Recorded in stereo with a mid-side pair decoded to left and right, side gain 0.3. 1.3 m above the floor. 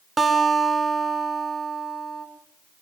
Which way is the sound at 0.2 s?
45° right.